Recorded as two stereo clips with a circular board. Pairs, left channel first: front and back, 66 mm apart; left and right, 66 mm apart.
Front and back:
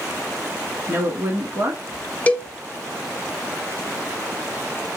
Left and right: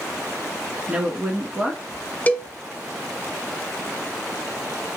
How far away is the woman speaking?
About 1.5 m.